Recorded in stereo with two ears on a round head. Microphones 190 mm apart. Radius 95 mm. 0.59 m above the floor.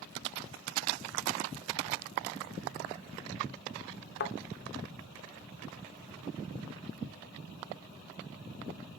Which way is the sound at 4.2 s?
50° left (ahead or behind).